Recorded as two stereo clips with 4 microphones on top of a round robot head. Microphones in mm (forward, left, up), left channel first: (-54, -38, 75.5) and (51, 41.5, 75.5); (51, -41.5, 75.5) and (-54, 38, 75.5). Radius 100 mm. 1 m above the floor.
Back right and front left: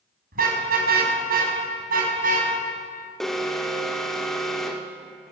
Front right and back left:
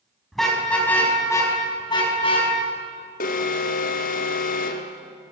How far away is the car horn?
About 3.5 m.